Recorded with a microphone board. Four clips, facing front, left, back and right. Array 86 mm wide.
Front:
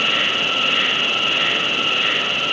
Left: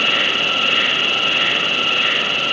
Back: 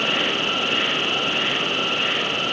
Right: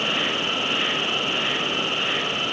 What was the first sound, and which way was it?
An insect, 65° left.